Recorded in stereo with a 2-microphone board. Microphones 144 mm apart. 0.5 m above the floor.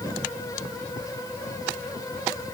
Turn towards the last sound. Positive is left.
No sound to turn to.